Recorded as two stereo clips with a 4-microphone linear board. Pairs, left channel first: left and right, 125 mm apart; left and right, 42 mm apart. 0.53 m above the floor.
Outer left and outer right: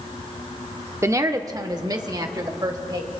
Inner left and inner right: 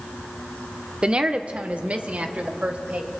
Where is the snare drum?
I don't hear a snare drum.